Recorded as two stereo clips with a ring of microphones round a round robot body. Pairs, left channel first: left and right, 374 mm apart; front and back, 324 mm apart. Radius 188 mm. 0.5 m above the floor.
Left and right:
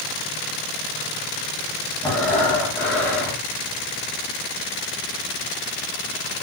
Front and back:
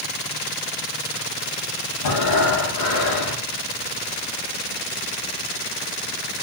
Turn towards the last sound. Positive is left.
turn(degrees=5)